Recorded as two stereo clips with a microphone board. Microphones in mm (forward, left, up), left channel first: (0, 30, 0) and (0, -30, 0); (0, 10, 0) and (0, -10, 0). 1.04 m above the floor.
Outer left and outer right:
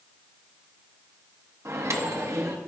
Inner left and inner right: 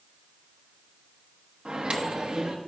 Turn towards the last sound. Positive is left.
turn(degrees=-50)  # may be behind; listen again after turning